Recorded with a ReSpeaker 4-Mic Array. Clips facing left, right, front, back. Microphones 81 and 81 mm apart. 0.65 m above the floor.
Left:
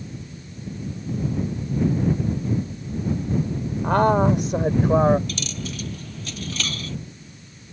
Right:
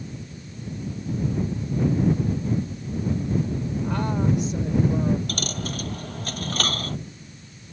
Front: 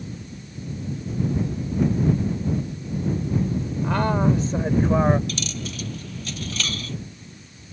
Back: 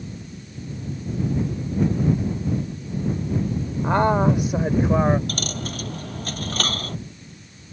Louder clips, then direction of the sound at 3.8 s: Left 9 dB, back 3 dB; 120° left.